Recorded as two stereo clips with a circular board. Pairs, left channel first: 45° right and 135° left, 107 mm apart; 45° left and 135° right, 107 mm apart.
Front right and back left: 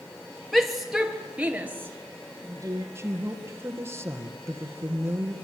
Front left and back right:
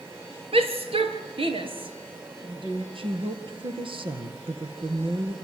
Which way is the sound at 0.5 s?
135° right.